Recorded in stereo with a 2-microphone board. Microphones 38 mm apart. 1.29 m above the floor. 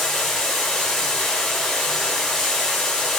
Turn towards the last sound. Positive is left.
turn(degrees=5)  # may be behind; listen again after turning